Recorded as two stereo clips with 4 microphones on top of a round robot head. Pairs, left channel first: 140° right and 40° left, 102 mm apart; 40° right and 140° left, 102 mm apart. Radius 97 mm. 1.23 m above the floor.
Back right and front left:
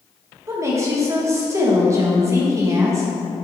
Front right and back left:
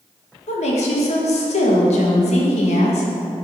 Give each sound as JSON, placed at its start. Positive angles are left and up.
{"t": 0.5, "sound": "a woman speaking", "azimuth_deg": -25, "distance_m": 1.2}